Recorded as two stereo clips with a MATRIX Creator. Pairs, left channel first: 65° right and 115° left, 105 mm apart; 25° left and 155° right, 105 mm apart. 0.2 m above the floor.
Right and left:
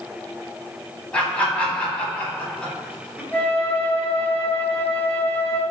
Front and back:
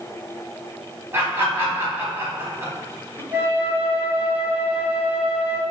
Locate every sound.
1.1 s laughter: 130° right, 1.1 m
3.3 s a flute: 110° right, 0.6 m